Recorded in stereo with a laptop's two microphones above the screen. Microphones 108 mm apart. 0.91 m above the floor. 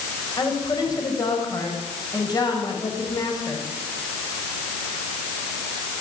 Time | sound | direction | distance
0.4 | a woman speaking | 35° left (ahead or behind) | 5.5 m